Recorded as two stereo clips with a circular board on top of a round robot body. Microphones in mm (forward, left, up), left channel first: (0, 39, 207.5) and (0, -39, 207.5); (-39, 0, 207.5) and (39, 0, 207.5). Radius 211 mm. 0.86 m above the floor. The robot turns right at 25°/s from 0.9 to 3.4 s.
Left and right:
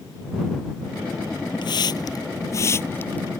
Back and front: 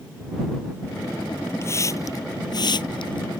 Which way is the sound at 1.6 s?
120° left.